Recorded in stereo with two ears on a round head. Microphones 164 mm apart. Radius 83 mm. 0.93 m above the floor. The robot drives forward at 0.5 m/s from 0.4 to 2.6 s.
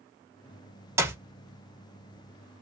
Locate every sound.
1.0 s a clap: 15° right (ahead or behind), 0.7 m; by 1.2 s 10° right (ahead or behind), 0.8 m